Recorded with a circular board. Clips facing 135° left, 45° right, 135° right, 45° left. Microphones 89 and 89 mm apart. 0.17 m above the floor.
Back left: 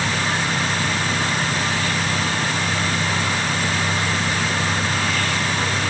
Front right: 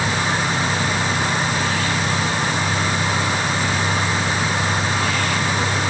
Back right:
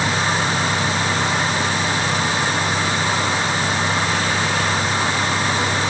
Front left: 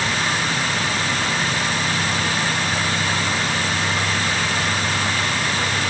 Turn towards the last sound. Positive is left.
No sound to turn to.